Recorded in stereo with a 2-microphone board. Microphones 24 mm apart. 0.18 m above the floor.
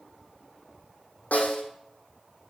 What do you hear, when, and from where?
1.3 s a snare drum: 85° left, 3 m